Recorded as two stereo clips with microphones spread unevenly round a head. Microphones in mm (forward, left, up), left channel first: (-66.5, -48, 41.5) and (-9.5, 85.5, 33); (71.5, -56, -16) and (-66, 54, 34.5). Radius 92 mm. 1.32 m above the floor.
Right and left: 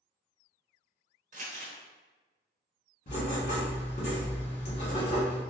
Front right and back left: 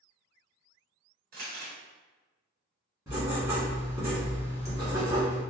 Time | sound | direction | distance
1.3 | crumpling | 100° left | 1.1 m
3.1 | writing | 150° right | 1.5 m